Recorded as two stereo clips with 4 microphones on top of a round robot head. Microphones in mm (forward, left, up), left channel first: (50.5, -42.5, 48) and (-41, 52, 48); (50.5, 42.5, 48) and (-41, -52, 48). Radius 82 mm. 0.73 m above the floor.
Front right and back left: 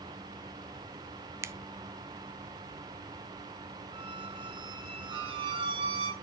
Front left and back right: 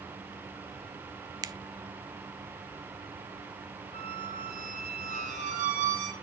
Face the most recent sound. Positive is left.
turn(degrees=-170)